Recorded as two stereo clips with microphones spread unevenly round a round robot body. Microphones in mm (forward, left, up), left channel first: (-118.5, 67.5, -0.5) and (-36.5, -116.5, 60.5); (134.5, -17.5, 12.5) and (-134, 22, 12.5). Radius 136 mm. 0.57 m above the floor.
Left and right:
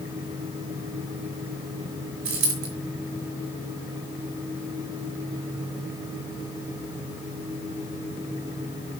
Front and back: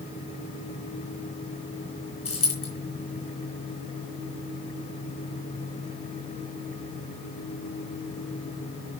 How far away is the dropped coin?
About 3 m.